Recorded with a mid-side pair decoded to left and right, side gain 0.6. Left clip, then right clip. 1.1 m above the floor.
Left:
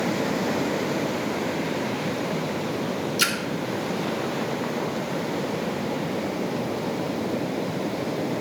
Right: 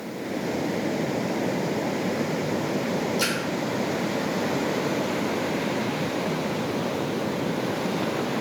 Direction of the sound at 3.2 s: 40° left.